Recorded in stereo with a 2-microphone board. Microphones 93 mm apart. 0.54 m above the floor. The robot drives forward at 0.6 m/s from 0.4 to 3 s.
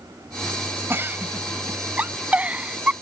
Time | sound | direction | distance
0.9 | a giggle | 25° right (ahead or behind) | ?